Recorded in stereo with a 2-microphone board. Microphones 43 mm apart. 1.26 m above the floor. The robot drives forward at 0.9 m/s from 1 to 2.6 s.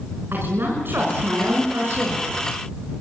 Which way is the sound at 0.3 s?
60° right (ahead or behind).